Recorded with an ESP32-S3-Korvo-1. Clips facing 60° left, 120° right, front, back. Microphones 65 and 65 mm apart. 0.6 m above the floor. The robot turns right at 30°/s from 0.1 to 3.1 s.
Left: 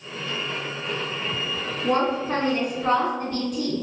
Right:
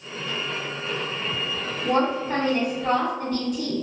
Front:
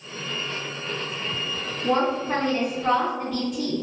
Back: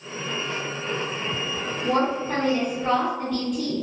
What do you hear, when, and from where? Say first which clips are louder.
1.8 s a woman speaking: even, front 1 dB; 40° left, 1.7 m; by 3.8 s 80° left, 1.7 m